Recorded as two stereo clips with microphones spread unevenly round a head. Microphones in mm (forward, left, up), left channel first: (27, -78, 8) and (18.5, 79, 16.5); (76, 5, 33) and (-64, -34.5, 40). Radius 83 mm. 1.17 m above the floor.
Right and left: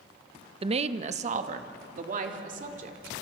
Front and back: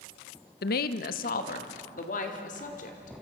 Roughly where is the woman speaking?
Ahead left.